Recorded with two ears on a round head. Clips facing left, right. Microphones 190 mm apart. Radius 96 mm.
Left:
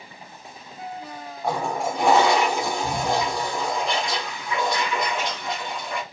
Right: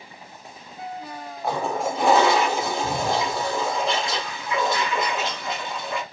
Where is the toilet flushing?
Centre (ahead or behind), 0.7 m.